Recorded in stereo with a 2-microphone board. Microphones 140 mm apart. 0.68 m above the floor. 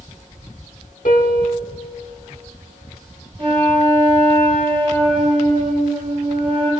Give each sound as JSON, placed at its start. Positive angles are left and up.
{"t": 1.1, "sound": "a piano", "side_deg": 70, "distance_m": 1.3}
{"t": 3.4, "sound": "a flute", "side_deg": -40, "distance_m": 2.5}